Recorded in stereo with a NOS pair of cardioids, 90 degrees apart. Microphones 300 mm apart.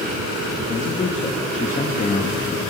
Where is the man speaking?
25° left, 1.2 m.